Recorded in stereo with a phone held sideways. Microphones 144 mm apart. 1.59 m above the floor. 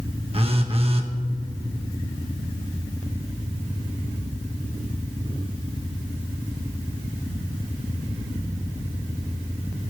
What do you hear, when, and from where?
0.3 s a phone buzzing: 40° right (ahead or behind), 1.4 m